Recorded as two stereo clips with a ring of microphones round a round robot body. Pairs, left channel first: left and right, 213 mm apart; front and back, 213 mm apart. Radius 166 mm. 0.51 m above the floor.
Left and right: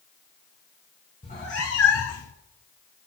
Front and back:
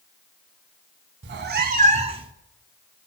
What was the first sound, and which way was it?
A cat meowing, 160° left.